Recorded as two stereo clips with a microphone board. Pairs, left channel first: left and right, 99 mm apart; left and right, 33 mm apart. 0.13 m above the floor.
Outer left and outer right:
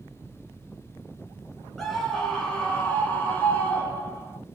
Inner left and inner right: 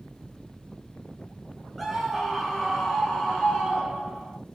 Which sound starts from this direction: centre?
A scream, at 1.8 s.